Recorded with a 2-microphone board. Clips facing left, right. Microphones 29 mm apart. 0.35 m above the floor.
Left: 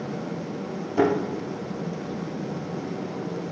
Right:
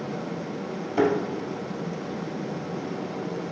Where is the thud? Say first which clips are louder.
Left 1 dB; 20° right (ahead or behind), 2.5 m.